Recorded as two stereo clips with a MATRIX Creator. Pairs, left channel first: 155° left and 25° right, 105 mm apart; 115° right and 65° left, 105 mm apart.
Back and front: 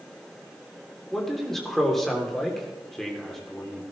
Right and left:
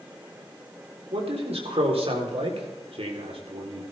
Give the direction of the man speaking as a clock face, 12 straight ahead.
10 o'clock.